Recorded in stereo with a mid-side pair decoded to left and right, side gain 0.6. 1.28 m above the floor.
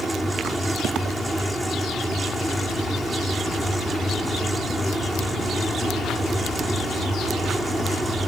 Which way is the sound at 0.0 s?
10° right.